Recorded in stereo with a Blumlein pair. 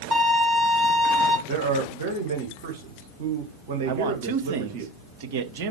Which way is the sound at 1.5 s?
50° right.